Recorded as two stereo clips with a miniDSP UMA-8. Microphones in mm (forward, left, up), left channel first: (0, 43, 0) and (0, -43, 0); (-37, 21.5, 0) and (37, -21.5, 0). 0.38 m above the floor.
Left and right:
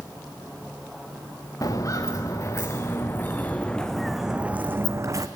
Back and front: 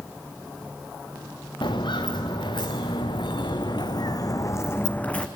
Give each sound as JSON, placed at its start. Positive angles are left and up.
{"t": 1.6, "sound": "footsteps", "azimuth_deg": 135, "distance_m": 2.0}